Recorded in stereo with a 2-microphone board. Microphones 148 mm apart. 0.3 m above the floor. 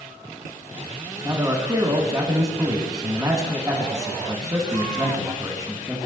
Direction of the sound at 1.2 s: 25° right (ahead or behind).